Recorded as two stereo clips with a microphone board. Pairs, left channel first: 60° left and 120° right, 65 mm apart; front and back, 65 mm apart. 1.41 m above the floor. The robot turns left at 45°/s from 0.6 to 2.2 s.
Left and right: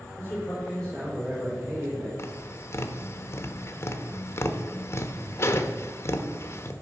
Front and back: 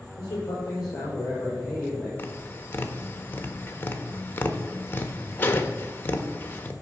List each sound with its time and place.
0.2 s a man speaking: 10° right, 5.5 m; by 2.1 s 75° right, 5.5 m
2.2 s tapping: 45° left, 0.9 m